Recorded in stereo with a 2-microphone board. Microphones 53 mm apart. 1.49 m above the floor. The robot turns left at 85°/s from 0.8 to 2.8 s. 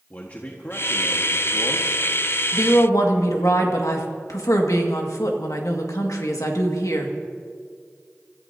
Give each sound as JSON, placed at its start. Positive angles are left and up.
{"t": 0.1, "sound": "a man speaking", "azimuth_deg": 145, "distance_m": 1.5}
{"t": 2.5, "sound": "a woman speaking", "side_deg": 60, "distance_m": 2.0}